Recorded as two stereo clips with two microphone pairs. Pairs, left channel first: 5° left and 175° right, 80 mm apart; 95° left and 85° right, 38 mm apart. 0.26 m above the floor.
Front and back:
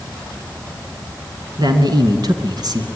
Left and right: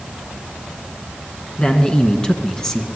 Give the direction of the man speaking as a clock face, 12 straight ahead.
7 o'clock.